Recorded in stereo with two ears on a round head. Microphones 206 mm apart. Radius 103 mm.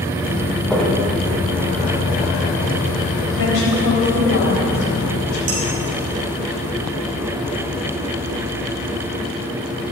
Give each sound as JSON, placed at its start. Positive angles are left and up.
{"t": 0.7, "sound": "footsteps", "side_deg": 5, "distance_m": 2.5}
{"t": 3.3, "sound": "a woman speaking", "side_deg": 75, "distance_m": 3.5}
{"t": 5.5, "sound": "dishes clattering", "side_deg": -35, "distance_m": 4.5}